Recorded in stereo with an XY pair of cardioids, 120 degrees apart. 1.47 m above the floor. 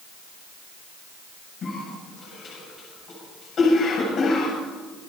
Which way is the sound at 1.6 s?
45° left.